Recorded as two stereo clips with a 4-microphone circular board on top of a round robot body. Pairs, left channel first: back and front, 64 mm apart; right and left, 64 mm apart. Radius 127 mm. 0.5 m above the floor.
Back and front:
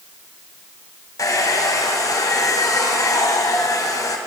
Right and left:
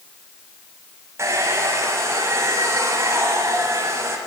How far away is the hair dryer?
About 1.5 m.